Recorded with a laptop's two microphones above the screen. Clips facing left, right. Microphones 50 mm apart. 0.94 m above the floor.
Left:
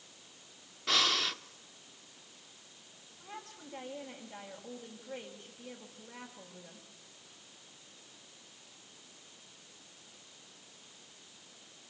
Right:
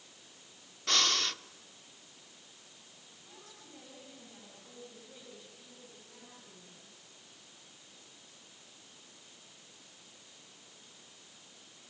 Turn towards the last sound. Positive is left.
turn(degrees=65)  # may be behind; listen again after turning